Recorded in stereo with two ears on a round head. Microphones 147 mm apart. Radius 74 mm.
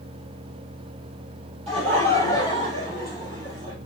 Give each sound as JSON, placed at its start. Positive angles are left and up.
{"t": 1.7, "sound": "laughter", "side_deg": -35, "distance_m": 5.0}